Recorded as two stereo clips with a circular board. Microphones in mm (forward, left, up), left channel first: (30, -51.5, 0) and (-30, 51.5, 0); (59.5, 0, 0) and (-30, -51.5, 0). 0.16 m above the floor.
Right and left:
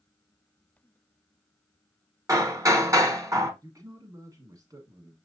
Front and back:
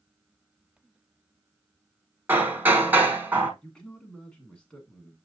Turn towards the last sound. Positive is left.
turn(degrees=105)